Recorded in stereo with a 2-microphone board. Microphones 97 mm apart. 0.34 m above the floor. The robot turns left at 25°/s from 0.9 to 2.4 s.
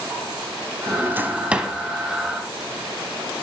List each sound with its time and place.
0.9 s a drawer: 25° right (ahead or behind), 0.6 m; by 1.7 s 5° right (ahead or behind), 0.6 m